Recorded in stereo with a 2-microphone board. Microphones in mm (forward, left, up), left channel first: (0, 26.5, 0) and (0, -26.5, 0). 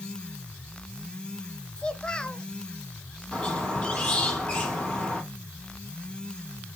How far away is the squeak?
About 3.5 m.